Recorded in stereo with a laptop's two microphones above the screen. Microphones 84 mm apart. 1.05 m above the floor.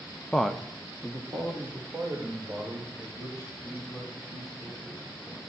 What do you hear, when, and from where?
0.3 s a man speaking: 10° left (ahead or behind), 0.7 m; by 5.4 s 40° right (ahead or behind), 7.5 m